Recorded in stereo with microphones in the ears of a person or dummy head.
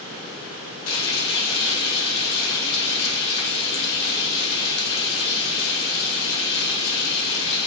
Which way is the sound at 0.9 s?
85° left.